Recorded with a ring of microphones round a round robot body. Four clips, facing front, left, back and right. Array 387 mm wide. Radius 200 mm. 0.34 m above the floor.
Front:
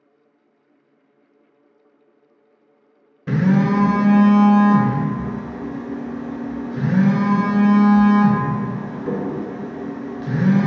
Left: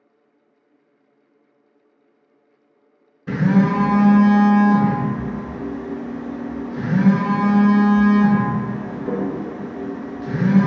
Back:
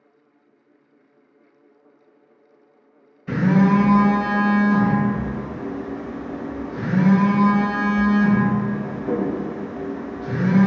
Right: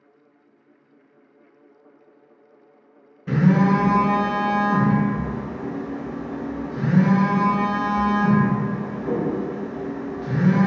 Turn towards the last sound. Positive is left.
turn(degrees=5)